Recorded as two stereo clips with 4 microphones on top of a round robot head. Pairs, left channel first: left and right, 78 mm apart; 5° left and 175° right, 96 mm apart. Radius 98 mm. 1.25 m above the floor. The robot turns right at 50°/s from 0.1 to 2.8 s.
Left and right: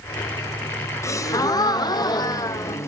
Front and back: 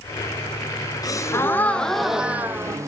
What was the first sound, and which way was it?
A gasp, 45° left.